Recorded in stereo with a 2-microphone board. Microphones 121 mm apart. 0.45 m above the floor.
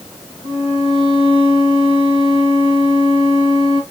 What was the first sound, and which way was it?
A violin, 40° right (ahead or behind).